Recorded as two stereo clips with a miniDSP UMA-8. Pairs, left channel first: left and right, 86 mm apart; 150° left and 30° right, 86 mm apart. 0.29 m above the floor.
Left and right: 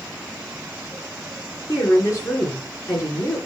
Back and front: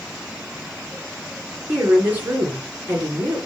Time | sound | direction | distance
1.7 | a woman speaking | 40° left | 3.5 m